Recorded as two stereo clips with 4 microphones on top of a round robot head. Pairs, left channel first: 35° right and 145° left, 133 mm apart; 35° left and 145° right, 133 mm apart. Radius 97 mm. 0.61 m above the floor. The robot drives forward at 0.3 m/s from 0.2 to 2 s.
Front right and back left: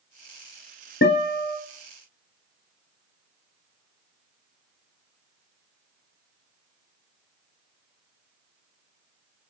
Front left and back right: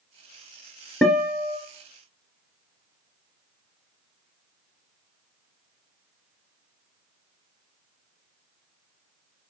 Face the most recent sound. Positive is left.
turn(degrees=-65)